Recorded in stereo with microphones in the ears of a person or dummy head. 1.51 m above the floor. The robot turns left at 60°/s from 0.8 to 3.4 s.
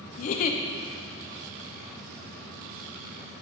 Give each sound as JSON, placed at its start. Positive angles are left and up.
{"t": 0.2, "sound": "a giggle", "side_deg": 50, "distance_m": 0.5}